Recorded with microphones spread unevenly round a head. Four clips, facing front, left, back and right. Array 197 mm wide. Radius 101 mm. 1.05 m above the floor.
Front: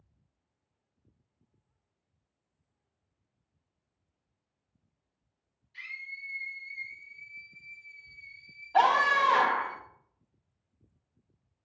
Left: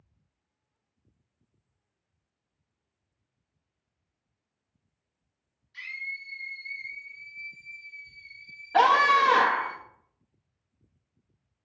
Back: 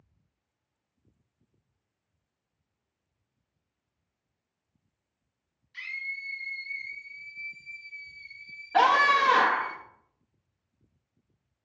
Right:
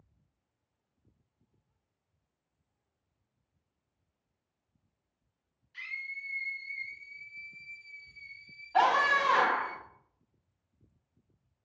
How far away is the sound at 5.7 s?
About 2.5 m.